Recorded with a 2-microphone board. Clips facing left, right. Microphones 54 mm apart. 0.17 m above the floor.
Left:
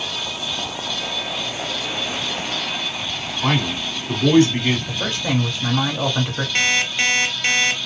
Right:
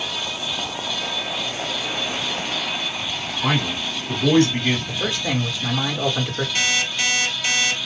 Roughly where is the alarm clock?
Left.